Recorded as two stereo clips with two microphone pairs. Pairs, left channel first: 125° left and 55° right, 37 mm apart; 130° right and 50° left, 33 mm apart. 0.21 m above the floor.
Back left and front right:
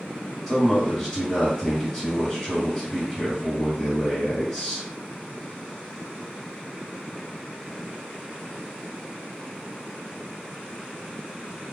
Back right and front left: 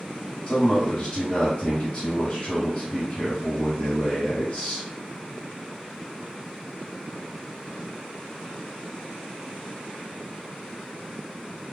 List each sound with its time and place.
0.5 s a man speaking: 160° right, 1.5 m